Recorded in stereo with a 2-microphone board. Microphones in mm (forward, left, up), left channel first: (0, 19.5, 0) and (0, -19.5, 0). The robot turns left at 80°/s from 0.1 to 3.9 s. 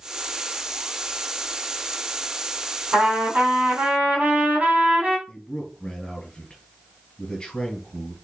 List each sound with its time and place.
2.9 s a trumpet: 55° right, 2.5 m; by 5.2 s 135° right, 2.5 m
5.3 s a man speaking: 25° left (ahead or behind), 1.9 m